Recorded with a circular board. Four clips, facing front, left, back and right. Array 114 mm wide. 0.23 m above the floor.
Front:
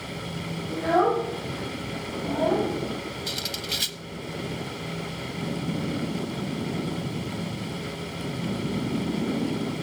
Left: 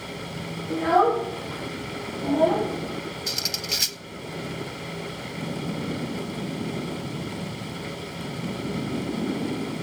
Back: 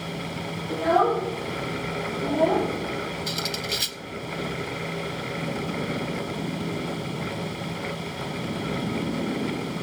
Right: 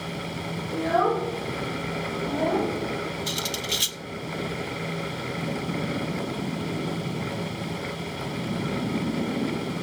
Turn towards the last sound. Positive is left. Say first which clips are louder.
# right 3 dB, back 4 dB
turn(degrees=95)